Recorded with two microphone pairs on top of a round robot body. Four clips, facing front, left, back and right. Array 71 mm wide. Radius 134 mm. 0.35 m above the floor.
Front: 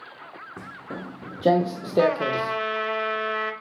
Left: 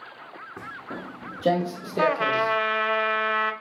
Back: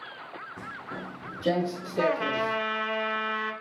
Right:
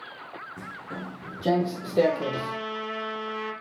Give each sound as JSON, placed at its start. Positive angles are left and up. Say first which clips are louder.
{"t": 0.6, "sound": "footsteps", "louder": "left 3 dB, front 3 dB", "azimuth_deg": 35, "distance_m": 1.9}
{"t": 2.0, "sound": "a trumpet", "louder": "left 2 dB, front 4 dB", "azimuth_deg": 80, "distance_m": 0.7}